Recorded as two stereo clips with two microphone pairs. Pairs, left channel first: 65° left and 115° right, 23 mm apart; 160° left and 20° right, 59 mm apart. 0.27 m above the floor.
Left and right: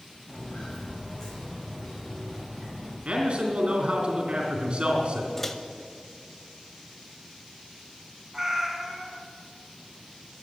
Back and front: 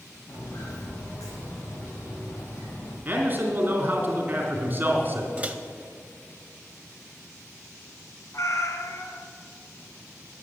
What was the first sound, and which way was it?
Footsteps, 130° left.